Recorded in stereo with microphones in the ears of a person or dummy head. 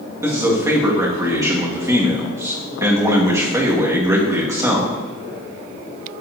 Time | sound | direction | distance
0.2 | a man speaking | 15° right (ahead or behind) | 1.6 m